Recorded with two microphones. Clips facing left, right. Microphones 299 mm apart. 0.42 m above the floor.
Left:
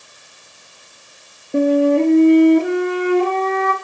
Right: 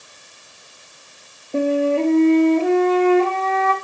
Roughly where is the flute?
Centre.